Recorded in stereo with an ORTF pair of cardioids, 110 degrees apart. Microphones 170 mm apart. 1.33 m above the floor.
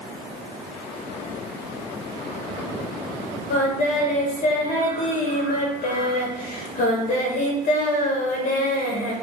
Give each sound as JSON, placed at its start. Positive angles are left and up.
{"t": 3.5, "sound": "singing", "azimuth_deg": 50, "distance_m": 1.0}